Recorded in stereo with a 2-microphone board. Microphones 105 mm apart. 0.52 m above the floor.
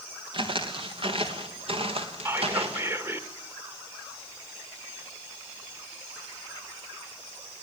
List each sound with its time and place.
0.3 s footsteps: 55° right (ahead or behind), 4.5 m; by 2.9 s 70° right (ahead or behind), 4.5 m
2.2 s whispering: 25° right (ahead or behind), 1.7 m